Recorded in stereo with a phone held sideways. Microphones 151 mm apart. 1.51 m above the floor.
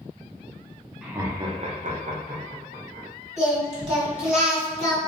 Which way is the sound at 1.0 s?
5° right (ahead or behind).